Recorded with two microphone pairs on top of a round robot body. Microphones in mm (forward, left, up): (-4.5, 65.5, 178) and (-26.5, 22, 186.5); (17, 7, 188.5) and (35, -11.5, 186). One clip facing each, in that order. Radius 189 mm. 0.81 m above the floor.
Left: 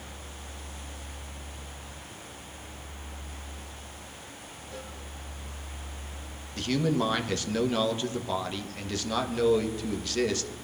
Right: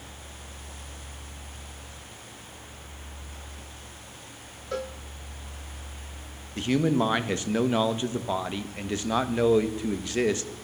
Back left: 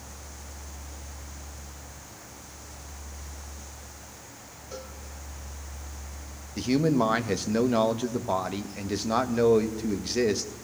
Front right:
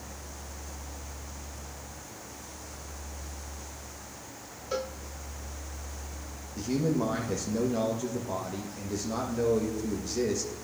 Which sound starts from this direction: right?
A cowbell, at 4.7 s.